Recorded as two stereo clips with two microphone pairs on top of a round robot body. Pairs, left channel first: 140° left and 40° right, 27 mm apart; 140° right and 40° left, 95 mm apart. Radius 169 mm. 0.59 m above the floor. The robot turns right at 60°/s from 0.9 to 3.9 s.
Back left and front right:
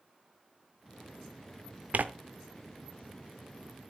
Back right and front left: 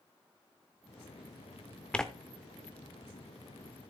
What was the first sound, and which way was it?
Tearing paper, 60° right.